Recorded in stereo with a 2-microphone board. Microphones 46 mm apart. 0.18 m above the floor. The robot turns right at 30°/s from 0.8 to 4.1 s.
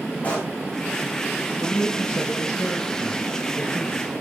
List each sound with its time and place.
0.2 s a pop: 30° left (ahead or behind), 4.5 m
1.6 s a man speaking: 90° left, 4.5 m; by 4.2 s 165° left, 4.5 m